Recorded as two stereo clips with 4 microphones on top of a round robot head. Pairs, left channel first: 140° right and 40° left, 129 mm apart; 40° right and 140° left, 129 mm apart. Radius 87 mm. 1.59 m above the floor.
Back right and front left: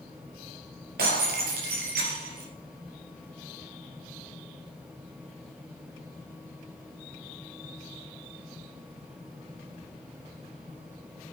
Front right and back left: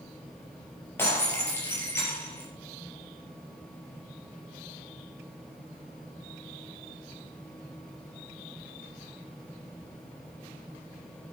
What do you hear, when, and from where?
1.0 s breaking glass: 30° left, 4 m